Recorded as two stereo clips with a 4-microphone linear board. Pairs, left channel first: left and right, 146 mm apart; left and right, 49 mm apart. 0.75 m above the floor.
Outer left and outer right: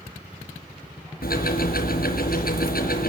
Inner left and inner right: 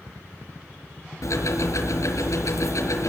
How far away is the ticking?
About 5 m.